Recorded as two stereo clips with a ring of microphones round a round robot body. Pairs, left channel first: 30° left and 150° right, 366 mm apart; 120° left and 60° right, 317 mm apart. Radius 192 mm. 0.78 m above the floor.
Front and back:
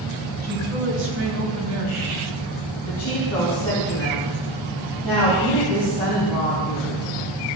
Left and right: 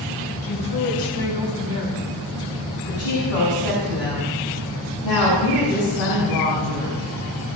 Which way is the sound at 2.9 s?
115° left.